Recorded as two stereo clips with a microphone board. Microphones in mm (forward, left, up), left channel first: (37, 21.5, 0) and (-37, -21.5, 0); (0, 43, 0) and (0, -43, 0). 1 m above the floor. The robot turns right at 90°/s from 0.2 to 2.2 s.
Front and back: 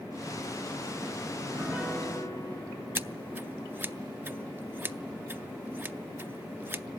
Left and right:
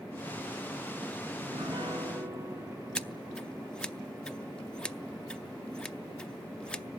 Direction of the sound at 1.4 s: 110° right.